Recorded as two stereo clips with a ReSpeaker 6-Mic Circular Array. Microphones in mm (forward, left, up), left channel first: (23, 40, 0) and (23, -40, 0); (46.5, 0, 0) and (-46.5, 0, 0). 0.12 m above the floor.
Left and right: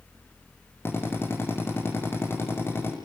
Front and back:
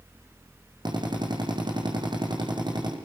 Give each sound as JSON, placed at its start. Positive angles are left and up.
{"t": 0.8, "sound": "a drill", "azimuth_deg": 150, "distance_m": 7.0}